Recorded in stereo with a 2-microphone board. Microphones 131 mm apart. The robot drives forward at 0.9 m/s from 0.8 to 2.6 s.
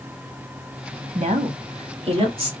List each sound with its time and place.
1.1 s a woman speaking: 70° right (ahead or behind), 1.5 m; by 2.5 s 40° right (ahead or behind), 2 m